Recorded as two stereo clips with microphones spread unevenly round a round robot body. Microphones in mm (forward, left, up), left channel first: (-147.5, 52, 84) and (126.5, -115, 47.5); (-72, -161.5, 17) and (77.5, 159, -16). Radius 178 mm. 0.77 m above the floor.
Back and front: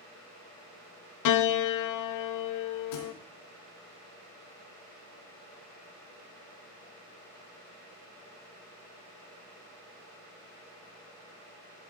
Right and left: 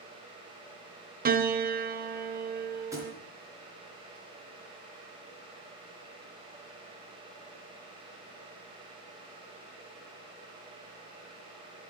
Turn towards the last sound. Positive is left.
turn(degrees=150)